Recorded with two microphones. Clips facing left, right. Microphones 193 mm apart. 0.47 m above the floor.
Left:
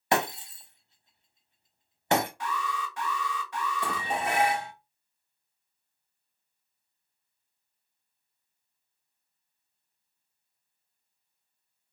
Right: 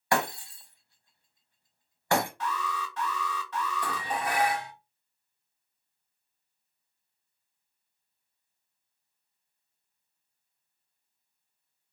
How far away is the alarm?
About 1.3 m.